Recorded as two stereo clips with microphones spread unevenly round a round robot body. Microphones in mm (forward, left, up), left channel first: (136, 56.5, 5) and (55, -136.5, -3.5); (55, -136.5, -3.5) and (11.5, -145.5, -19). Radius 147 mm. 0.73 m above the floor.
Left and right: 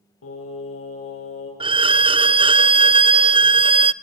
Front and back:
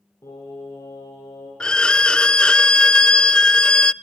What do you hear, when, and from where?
0.2 s singing: 60° left, 9 m
1.6 s a violin: 45° right, 0.6 m